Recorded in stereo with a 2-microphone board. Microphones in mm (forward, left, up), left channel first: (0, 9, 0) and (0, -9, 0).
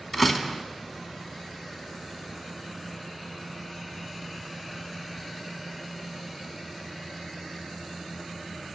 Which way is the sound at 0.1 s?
Centre (ahead or behind).